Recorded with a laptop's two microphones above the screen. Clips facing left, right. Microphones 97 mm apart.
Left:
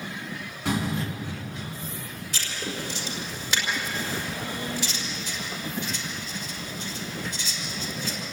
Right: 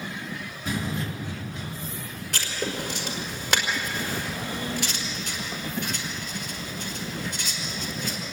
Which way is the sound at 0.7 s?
80° left.